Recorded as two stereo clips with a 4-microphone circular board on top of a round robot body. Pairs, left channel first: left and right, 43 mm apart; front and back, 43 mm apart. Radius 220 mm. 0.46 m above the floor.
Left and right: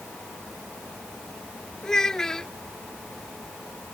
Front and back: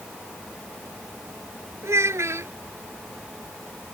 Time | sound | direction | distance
1.8 | a child speaking | 170° left | ?